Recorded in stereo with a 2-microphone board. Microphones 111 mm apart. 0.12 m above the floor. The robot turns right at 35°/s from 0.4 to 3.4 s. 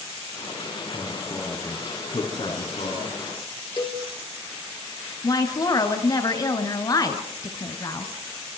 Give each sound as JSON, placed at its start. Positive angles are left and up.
{"t": 0.9, "sound": "a man speaking", "azimuth_deg": -10, "distance_m": 6.0}
{"t": 3.8, "sound": "a cowbell", "side_deg": 40, "distance_m": 2.5}
{"t": 5.2, "sound": "a woman speaking", "side_deg": 35, "distance_m": 1.7}